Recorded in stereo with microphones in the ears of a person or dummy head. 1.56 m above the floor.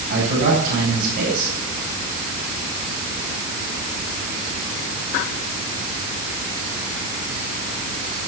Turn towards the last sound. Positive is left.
turn(degrees=-45)  # may be behind; listen again after turning